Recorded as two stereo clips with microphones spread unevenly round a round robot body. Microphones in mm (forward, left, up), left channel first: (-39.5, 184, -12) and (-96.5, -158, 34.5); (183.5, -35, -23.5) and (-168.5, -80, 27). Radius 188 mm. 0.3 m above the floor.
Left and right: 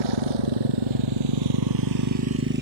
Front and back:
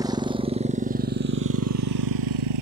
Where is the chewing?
No chewing in this recording.